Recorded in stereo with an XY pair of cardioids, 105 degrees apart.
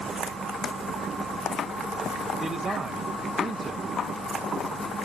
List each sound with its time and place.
2.4 s a man speaking: 30° right, 1.1 m